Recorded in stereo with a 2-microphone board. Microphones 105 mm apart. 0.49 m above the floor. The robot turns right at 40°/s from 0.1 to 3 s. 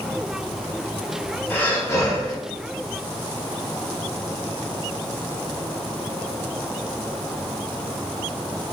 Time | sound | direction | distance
1.5 | breathing | 25° left | 0.7 m